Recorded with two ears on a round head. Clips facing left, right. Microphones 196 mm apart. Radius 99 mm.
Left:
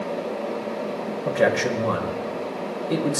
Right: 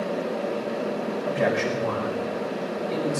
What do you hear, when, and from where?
1.2 s a man speaking: 70° left (ahead or behind), 4.5 m